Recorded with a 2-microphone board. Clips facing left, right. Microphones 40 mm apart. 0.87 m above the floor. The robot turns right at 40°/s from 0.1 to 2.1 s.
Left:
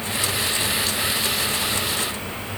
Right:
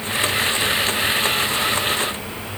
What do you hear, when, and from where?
Only background noise.